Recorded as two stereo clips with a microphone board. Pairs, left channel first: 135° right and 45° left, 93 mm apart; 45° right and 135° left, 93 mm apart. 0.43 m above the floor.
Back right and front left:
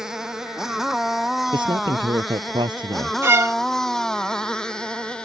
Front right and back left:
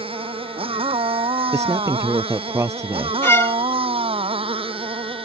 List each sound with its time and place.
0.0 s a motorcycle: 130° left; by 5.2 s 145° left
1.5 s a man speaking: 80° left
3.2 s a violin: straight ahead